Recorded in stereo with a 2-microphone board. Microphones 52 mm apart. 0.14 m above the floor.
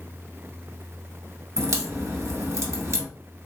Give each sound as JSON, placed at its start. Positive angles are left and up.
{"t": 1.6, "sound": "a crack", "side_deg": -60, "distance_m": 1.6}